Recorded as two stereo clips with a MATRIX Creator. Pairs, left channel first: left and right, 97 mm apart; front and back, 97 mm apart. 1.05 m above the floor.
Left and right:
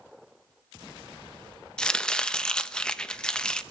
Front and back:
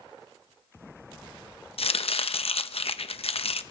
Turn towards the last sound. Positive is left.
turn(degrees=10)